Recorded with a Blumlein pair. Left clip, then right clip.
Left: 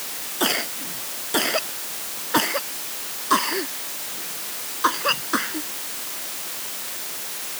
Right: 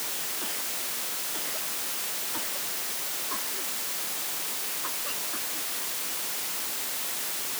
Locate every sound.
0.4 s a cough: 50° left